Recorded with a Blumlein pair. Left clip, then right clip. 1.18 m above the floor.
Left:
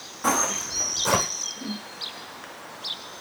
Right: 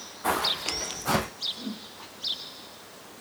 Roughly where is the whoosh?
Ahead.